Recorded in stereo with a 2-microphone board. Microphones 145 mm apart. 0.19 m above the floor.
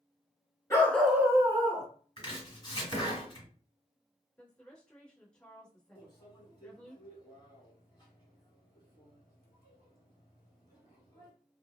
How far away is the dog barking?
About 0.9 m.